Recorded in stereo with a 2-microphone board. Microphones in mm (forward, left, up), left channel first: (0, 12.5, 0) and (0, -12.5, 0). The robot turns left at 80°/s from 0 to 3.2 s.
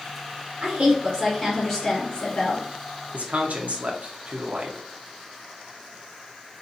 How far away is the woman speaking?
About 1.1 m.